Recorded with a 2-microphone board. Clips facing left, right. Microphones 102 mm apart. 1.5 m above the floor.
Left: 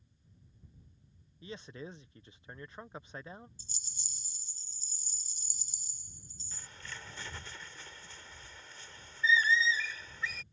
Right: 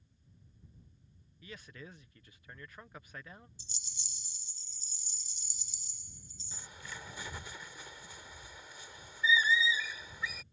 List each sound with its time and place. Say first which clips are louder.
1.4 s a man speaking: left 5 dB; 25° left (ahead or behind)
3.6 s a rattle: even; 40° left (ahead or behind)
6.5 s a bird: right 1 dB; 10° right (ahead or behind)